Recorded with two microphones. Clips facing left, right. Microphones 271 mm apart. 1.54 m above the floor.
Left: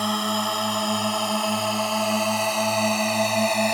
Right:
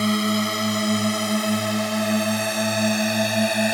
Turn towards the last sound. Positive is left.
turn(degrees=-15)  # may be behind; listen again after turning